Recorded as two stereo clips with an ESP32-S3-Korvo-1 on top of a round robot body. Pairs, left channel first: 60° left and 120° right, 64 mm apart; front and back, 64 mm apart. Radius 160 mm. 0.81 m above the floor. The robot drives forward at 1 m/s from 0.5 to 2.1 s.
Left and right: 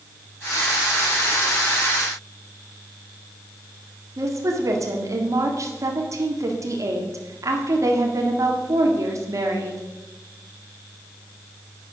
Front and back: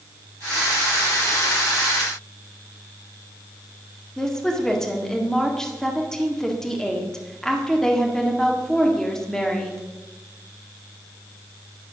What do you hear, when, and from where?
4.2 s a woman speaking: 85° right, 1.9 m